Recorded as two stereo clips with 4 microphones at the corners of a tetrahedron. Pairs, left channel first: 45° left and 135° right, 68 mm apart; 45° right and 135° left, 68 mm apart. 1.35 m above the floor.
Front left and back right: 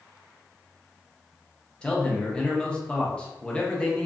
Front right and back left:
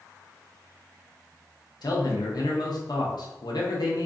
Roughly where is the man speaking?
Ahead right.